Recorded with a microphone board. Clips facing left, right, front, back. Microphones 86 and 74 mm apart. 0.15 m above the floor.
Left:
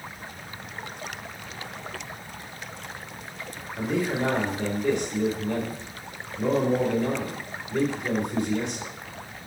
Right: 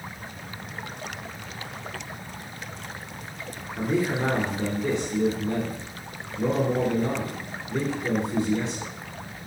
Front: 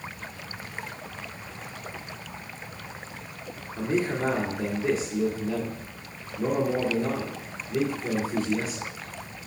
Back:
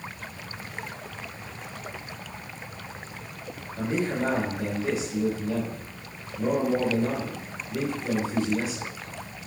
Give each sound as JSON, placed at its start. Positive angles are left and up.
{"t": 3.8, "sound": "a man speaking", "azimuth_deg": -40, "distance_m": 2.5}